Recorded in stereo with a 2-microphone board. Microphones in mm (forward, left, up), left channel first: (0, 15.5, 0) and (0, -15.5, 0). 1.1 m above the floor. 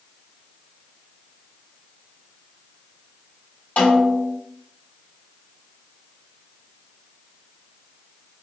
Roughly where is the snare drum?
Left.